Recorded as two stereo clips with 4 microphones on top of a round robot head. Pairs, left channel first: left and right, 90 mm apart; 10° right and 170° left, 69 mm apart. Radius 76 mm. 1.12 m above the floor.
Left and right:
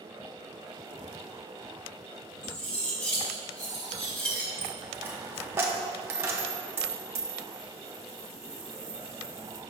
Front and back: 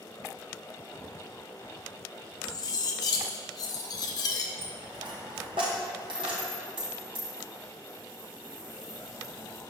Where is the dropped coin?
155° right, 1.0 m.